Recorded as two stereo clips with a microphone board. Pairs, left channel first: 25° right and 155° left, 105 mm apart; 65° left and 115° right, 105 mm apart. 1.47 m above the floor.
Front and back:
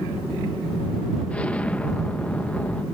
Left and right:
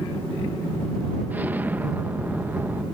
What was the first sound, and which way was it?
An explosion, 75° right.